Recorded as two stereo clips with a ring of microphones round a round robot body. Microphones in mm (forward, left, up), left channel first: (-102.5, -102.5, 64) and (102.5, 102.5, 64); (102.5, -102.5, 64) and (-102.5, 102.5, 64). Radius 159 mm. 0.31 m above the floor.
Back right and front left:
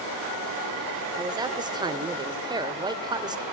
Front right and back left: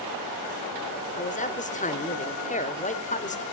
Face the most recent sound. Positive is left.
turn(degrees=-15)